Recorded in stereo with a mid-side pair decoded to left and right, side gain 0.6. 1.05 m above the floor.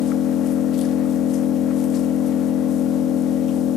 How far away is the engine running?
About 1.0 m.